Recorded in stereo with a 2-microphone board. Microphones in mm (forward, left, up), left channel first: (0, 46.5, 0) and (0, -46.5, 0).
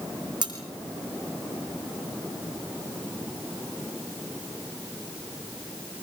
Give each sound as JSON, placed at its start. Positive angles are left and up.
{"t": 0.4, "sound": "cutlery clinking", "side_deg": -50, "distance_m": 4.0}